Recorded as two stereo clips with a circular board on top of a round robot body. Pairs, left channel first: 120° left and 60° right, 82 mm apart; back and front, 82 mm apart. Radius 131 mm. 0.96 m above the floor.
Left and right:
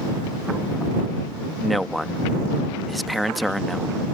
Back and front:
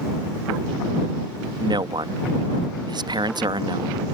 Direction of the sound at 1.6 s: 30° left.